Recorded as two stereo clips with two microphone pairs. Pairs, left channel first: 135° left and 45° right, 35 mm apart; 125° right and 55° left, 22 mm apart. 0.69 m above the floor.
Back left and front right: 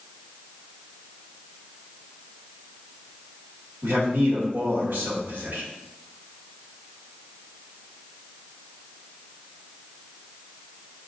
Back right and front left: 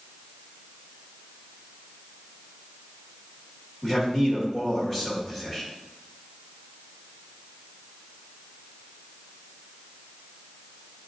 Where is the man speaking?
35° right, 1.9 m.